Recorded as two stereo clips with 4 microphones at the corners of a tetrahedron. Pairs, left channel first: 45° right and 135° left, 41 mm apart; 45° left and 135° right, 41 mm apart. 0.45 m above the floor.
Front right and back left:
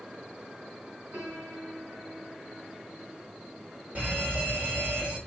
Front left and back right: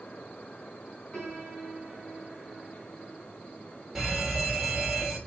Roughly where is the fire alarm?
Behind left.